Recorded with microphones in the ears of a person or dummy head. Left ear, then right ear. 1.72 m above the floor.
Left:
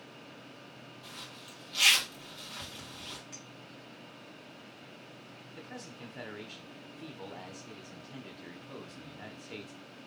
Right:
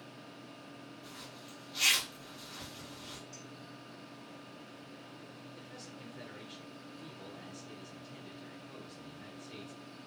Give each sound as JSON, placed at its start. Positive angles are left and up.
{"t": 1.0, "sound": "a zipper", "side_deg": 20, "distance_m": 1.2}
{"t": 3.3, "sound": "a clink", "side_deg": 40, "distance_m": 1.0}
{"t": 5.5, "sound": "a man speaking", "side_deg": 30, "distance_m": 0.7}